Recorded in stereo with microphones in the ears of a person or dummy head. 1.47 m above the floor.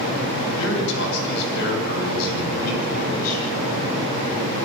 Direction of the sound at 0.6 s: 65° left (ahead or behind).